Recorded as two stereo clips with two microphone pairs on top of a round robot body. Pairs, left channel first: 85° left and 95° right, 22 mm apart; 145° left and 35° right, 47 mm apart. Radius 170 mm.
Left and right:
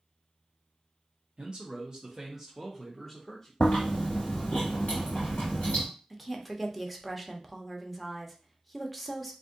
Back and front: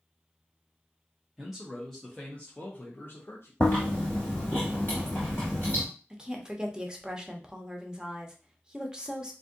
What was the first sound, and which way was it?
A man speaking, 105° right.